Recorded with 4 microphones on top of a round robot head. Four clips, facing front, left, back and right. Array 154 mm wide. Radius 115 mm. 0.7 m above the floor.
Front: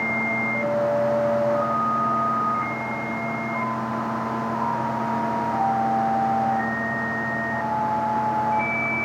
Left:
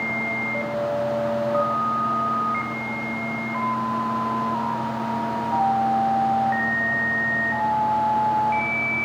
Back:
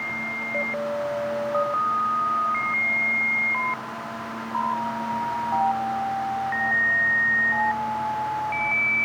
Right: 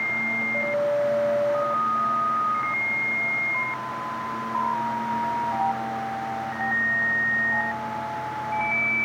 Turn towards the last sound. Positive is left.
No sound to turn to.